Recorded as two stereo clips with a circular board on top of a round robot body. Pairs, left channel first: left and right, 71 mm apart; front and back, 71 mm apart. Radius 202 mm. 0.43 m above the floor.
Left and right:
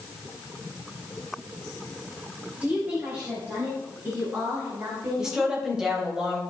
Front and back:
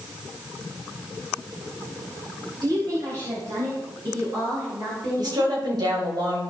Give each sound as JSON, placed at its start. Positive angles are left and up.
{"t": 2.6, "sound": "a woman speaking", "azimuth_deg": -160, "distance_m": 2.5}
{"t": 5.2, "sound": "a woman speaking", "azimuth_deg": -170, "distance_m": 3.0}